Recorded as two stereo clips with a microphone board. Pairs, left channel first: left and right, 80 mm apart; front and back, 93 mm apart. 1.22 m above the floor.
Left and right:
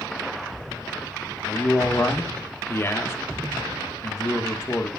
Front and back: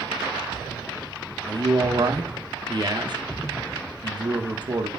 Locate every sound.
1.5 s a man speaking: 145° left, 1.4 m